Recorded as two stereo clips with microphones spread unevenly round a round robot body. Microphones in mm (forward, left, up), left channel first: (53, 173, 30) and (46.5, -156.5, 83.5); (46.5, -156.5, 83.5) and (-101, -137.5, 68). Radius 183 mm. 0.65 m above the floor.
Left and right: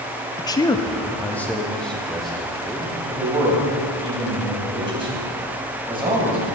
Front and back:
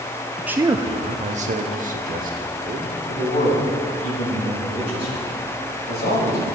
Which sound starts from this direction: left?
A man speaking, at 0.4 s.